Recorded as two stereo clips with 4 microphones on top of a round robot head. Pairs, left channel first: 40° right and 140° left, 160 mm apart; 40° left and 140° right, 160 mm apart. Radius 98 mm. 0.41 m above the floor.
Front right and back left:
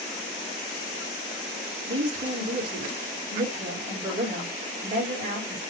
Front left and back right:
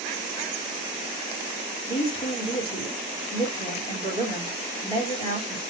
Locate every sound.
1.9 s a woman speaking: 95° left, 3 m